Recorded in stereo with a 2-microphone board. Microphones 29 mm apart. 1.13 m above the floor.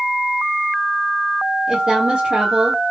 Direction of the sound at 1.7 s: 25° right (ahead or behind).